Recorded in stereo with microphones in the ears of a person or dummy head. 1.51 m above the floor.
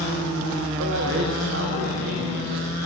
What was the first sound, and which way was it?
A man speaking, 70° right (ahead or behind).